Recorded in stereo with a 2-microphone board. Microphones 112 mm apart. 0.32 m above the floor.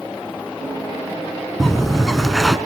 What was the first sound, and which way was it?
A bird, centre (ahead or behind).